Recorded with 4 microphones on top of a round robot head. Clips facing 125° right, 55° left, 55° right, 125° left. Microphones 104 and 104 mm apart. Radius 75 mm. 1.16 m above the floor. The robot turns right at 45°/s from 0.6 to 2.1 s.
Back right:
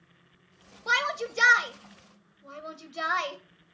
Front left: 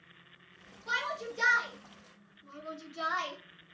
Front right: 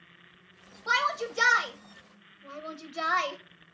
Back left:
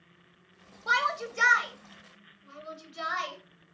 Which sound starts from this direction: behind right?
A shout, at 0.9 s.